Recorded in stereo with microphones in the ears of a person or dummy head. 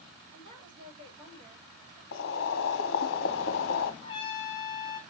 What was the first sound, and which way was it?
A woman speaking, 25° right (ahead or behind).